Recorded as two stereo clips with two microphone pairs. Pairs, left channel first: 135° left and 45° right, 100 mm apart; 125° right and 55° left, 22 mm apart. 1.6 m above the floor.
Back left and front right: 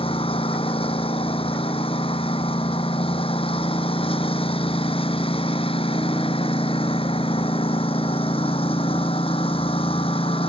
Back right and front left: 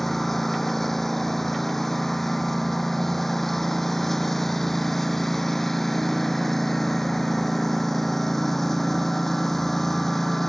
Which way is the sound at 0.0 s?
155° left.